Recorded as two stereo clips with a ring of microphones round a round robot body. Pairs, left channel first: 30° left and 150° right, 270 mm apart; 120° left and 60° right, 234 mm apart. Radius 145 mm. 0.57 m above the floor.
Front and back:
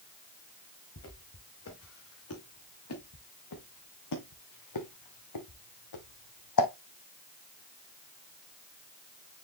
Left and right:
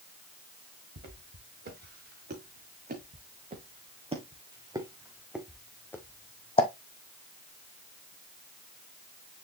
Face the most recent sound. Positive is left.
turn(degrees=55)